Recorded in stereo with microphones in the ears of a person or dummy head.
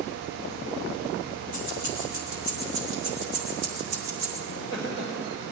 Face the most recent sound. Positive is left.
turn(degrees=-25)  # may be behind; listen again after turning